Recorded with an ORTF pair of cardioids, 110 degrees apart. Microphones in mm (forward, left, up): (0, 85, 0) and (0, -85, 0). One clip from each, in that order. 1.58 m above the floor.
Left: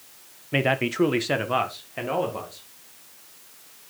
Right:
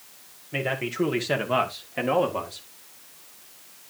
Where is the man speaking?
40° left, 1.5 m; by 2.7 s 25° right, 2.5 m.